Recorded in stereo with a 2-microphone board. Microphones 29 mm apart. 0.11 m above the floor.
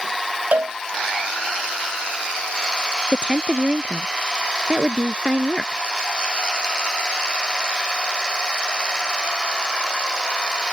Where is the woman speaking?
35° right (ahead or behind).